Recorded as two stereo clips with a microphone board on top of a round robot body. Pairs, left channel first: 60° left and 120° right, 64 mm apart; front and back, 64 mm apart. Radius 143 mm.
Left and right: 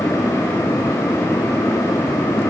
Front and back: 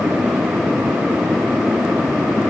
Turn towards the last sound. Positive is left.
No sound to turn to.